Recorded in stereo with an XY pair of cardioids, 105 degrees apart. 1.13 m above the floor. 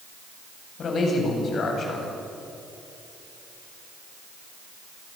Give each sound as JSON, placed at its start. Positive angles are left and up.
{"t": 0.8, "sound": "a man speaking", "azimuth_deg": 50, "distance_m": 8.5}